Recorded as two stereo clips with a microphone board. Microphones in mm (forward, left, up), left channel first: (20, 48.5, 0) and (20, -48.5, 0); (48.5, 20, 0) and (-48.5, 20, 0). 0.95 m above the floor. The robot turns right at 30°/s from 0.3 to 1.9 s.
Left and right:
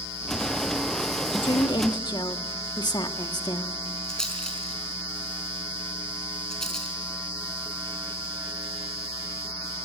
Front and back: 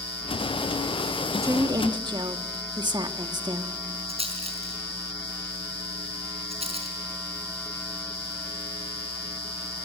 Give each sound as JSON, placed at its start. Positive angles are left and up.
{"t": 1.3, "sound": "a woman speaking", "azimuth_deg": 120, "distance_m": 1.3}
{"t": 4.1, "sound": "a rattle", "azimuth_deg": 175, "distance_m": 4.0}